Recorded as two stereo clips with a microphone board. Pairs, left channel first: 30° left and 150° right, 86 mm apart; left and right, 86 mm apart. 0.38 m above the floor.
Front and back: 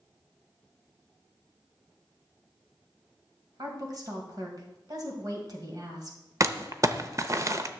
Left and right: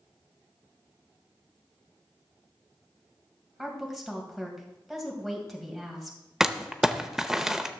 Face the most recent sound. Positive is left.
turn(degrees=-175)